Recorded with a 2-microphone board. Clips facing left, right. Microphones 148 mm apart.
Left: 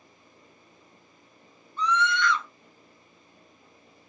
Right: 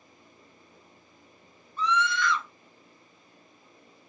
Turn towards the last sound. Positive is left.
turn(degrees=-5)  # may be behind; listen again after turning